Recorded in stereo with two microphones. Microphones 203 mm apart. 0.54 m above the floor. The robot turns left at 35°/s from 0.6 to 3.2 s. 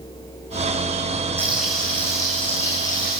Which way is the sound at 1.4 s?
170° right.